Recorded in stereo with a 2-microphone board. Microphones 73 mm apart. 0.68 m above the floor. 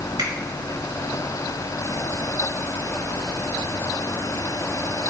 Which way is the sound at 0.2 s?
80° right.